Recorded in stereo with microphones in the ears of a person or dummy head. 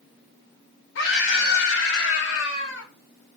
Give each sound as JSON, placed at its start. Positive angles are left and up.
{"t": 0.9, "sound": "a scream", "side_deg": 75, "distance_m": 3.5}